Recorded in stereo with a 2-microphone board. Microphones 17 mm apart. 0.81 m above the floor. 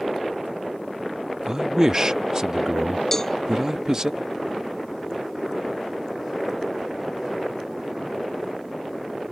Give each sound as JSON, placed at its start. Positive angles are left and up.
{"t": 1.5, "sound": "a man speaking", "side_deg": -35}
{"t": 3.1, "sound": "a cowbell", "side_deg": 25}